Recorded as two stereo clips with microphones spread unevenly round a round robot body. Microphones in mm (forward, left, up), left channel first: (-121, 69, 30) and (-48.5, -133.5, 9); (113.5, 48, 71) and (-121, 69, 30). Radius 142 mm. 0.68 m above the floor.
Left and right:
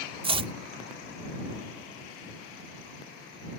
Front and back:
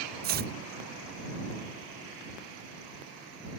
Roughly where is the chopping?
Behind right.